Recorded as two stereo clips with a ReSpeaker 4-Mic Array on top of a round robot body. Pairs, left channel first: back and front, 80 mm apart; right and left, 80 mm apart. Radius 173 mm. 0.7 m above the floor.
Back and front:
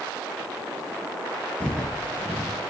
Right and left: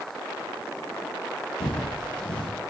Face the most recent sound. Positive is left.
turn(degrees=-105)